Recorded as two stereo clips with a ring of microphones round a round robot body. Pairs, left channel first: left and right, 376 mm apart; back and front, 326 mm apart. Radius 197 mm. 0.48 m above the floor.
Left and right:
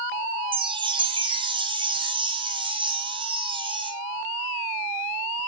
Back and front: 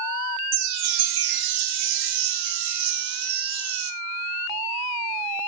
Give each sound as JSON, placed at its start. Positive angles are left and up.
{"t": 0.5, "sound": "a chime", "azimuth_deg": -10, "distance_m": 1.8}